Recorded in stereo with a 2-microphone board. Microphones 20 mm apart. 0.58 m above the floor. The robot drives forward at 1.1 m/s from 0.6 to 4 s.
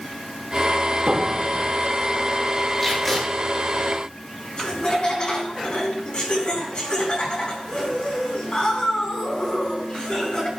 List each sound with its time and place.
1.1 s a piano: 55° right (ahead or behind), 4.5 m; by 1.7 s 60° right (ahead or behind), 4 m
2.8 s tape being pulled: 15° left (ahead or behind), 8 m
4.6 s laughter: 40° left (ahead or behind), 4 m